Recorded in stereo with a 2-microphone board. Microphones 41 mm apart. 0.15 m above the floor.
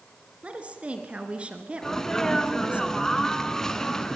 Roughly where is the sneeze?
Centre.